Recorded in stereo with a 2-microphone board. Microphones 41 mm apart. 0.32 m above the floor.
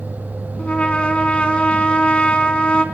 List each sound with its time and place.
0.6 s a trumpet: 30° left (ahead or behind), 3 m